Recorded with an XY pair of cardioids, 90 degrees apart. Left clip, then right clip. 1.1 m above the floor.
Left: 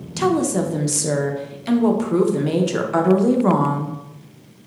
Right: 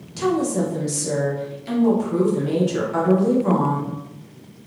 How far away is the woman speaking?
About 0.5 m.